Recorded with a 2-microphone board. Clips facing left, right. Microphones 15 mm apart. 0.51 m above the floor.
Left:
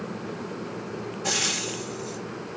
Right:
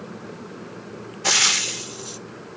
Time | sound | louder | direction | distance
1.2 | frying | right 8 dB | 50° right (ahead or behind) | 0.6 m